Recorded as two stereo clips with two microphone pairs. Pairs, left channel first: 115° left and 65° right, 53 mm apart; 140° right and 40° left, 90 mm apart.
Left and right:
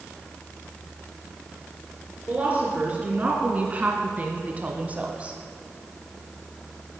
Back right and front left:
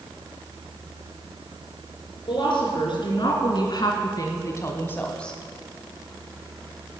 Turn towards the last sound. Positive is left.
turn(degrees=-70)